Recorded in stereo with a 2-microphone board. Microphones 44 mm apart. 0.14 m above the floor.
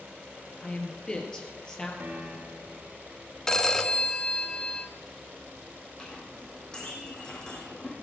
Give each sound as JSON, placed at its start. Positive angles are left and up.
{"t": 0.6, "sound": "a woman speaking", "side_deg": 20, "distance_m": 2.5}
{"t": 2.0, "sound": "a piano", "side_deg": -45, "distance_m": 2.0}
{"t": 3.5, "sound": "a phone ringing", "side_deg": 10, "distance_m": 1.0}
{"t": 6.0, "sound": "a clink", "side_deg": 20, "distance_m": 4.5}